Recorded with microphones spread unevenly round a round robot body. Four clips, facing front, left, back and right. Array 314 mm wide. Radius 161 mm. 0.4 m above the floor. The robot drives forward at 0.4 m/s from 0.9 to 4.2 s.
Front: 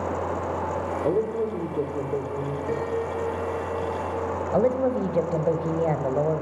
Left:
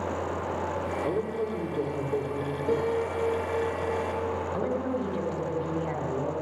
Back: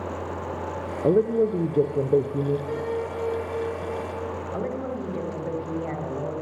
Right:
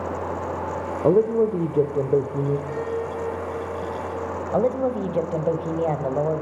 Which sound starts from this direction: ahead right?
A woman speaking, at 4.5 s.